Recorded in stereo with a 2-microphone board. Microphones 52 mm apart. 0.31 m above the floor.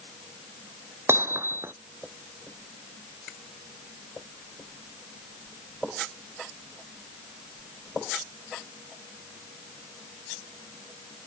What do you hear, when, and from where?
1.1 s hammering: 55° right (ahead or behind)